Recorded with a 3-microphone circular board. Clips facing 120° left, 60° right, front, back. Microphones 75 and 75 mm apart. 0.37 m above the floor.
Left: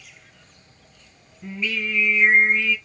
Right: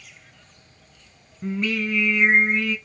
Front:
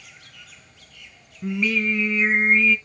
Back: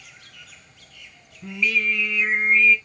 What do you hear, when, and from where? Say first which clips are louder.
1.4 s singing: right 3 dB, front 1 dB; 45° right, 2.0 m